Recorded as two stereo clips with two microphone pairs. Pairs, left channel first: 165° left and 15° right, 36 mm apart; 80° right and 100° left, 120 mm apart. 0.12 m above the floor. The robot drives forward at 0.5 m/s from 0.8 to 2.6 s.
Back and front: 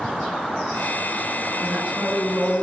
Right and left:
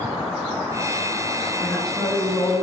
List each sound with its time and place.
1.6 s a woman speaking: 5° left, 2.5 m